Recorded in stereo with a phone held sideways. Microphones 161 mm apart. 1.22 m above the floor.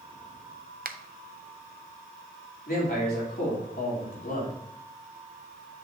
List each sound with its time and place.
0.8 s a finger snap: 65° right (ahead or behind), 0.6 m
2.7 s a man speaking: 70° left (ahead or behind), 3.5 m